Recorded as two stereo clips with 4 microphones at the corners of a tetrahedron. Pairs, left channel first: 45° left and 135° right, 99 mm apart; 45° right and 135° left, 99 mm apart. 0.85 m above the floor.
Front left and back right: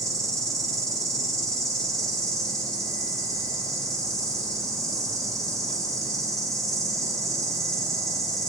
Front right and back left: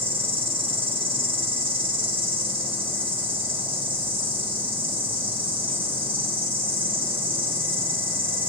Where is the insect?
165° left, 4 m.